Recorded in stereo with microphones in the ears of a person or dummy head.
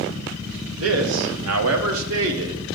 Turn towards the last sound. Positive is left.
turn(degrees=-70)  # may be behind; listen again after turning